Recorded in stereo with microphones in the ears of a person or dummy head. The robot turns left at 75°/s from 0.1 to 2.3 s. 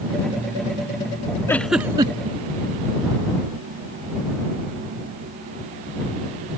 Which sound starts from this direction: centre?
A giggle, at 1.5 s.